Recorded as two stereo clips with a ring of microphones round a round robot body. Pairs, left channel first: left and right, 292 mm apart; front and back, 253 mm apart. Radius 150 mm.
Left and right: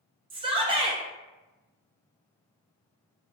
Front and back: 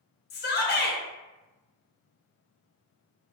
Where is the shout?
25° right, 0.5 m.